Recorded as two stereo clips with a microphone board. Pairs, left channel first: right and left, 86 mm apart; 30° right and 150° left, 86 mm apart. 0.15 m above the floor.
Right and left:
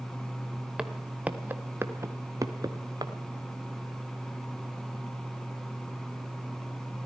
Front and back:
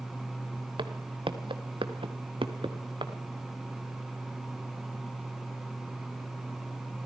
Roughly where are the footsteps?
Behind.